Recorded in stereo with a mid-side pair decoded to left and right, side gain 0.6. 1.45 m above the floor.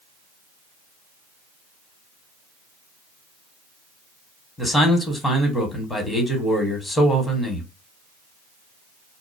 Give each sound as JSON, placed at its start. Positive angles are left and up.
{"t": 4.6, "sound": "a man speaking", "azimuth_deg": 15, "distance_m": 1.2}